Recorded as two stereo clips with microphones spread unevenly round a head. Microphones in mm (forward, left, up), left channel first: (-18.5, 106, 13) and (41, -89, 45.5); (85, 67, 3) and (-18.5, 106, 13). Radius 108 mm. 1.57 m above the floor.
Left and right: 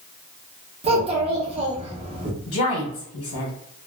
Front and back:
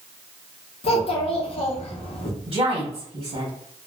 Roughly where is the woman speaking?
Behind left.